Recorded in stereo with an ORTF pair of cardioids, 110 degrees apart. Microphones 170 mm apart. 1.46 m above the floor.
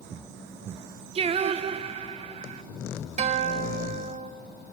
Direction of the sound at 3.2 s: 45° right.